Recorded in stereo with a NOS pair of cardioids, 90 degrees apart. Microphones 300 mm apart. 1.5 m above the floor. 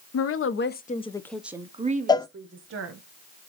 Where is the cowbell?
15° left, 0.6 m.